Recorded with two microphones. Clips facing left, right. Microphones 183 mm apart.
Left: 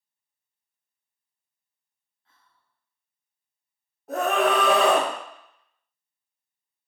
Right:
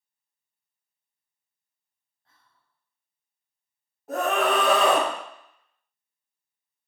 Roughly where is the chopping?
I don't hear chopping.